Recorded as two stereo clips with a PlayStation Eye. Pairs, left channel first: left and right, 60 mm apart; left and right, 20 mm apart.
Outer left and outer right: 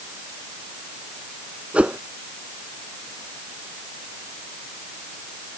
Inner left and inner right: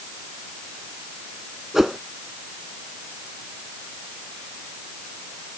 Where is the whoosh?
20° right (ahead or behind).